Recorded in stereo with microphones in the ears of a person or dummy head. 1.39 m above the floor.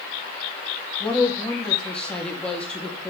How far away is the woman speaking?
About 3 m.